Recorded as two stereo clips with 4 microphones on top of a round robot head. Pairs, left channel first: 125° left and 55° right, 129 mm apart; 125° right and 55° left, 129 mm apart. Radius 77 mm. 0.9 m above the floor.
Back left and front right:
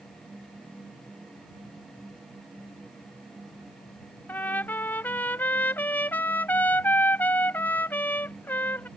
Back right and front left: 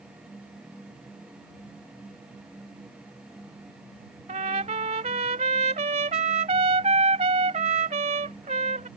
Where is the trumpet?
55° left.